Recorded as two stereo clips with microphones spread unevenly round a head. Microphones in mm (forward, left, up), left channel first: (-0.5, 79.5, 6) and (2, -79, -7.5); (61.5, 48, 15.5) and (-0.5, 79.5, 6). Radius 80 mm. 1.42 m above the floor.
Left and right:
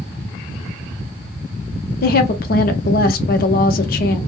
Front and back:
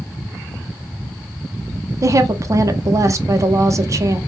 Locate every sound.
2.0 s a woman speaking: 120° left, 0.6 m